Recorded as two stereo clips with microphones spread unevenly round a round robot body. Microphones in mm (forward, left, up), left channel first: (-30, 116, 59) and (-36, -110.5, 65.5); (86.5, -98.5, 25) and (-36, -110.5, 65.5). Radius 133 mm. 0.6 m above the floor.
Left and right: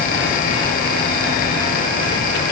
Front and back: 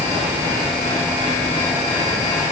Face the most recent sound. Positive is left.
No sound to turn to.